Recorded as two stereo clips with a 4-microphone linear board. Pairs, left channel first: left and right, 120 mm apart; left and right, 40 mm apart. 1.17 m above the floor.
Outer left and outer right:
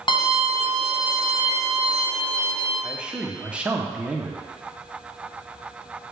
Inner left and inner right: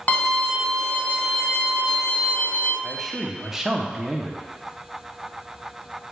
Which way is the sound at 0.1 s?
40° left (ahead or behind).